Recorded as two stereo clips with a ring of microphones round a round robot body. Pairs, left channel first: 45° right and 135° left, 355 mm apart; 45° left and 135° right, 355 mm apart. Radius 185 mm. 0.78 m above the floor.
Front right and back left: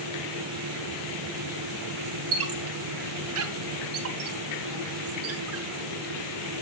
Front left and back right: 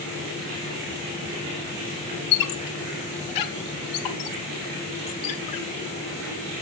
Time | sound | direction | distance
2.3 | a squeak | 80° left | 0.7 m